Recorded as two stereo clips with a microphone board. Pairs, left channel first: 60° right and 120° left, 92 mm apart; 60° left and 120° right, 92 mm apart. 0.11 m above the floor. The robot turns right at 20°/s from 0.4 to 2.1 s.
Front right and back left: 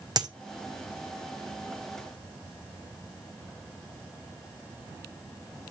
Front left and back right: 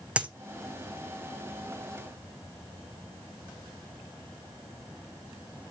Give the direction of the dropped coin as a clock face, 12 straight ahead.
7 o'clock.